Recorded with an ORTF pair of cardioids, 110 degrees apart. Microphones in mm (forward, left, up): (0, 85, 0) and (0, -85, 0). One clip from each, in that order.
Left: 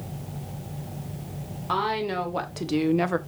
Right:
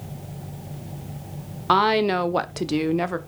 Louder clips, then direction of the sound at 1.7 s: Right 7 dB; 55° right.